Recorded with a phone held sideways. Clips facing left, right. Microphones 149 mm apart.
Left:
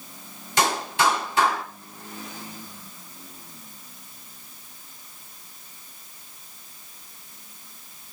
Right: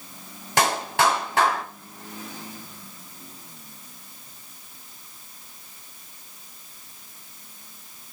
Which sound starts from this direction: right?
A clap, at 0.6 s.